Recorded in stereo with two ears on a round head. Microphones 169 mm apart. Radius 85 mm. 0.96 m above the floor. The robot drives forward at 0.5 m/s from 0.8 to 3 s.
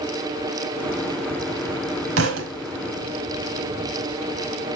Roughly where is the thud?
Right.